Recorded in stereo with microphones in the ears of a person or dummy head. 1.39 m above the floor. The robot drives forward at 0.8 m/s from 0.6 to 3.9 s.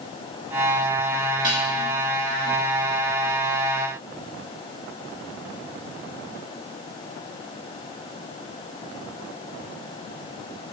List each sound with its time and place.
1.4 s dishes clattering: 25° right (ahead or behind), 1.7 m; by 1.7 s 20° right (ahead or behind), 1.8 m